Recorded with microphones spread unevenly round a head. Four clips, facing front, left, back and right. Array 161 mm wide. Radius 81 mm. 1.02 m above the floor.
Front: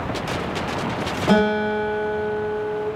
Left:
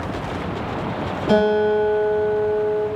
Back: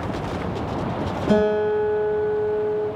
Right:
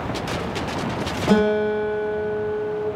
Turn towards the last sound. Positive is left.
turn(degrees=-10)